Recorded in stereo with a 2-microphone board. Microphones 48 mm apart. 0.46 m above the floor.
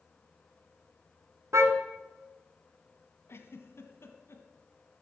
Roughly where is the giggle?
Left.